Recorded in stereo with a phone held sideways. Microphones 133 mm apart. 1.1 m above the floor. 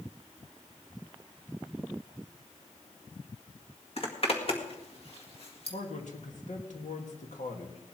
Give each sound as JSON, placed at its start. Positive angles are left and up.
{"t": 4.0, "sound": "a zipper", "side_deg": 50, "distance_m": 1.8}
{"t": 5.7, "sound": "a man speaking", "side_deg": 70, "distance_m": 2.0}